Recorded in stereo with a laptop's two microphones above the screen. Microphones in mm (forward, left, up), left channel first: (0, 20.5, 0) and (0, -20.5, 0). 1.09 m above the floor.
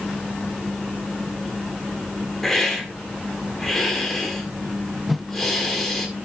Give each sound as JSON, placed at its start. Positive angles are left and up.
{"t": 2.4, "sound": "a hiss", "side_deg": 10, "distance_m": 1.7}
{"t": 5.1, "sound": "a whoosh", "side_deg": -5, "distance_m": 0.6}